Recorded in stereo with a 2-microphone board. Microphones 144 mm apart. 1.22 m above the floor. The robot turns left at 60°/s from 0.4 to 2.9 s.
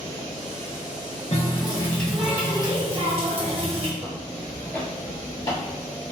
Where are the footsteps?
10° right (ahead or behind), 1.5 m; by 5.6 s 25° left (ahead or behind), 1.3 m.